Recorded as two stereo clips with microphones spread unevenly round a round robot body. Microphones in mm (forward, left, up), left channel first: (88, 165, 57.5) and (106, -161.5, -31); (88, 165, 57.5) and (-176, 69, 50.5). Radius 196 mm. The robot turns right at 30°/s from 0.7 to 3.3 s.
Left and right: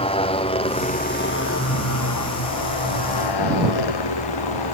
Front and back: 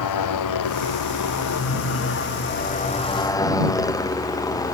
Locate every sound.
0.0 s a motorcycle: 20° left; by 4.8 s 100° left